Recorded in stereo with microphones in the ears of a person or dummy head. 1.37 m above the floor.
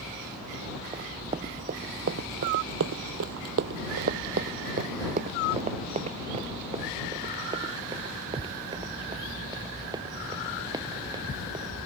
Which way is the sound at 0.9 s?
25° right (ahead or behind).